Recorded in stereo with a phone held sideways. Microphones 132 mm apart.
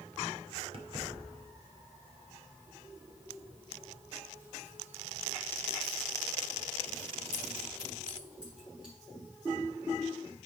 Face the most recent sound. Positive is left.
turn(degrees=-5)  # may be behind; listen again after turning